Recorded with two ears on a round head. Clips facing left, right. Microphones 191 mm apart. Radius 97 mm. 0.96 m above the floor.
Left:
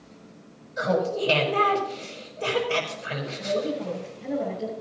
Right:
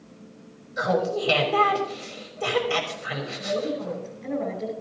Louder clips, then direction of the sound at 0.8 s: Even; 30° right (ahead or behind).